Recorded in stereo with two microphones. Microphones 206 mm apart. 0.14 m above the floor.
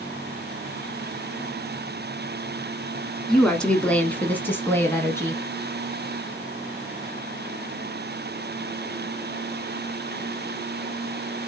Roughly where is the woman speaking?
Centre.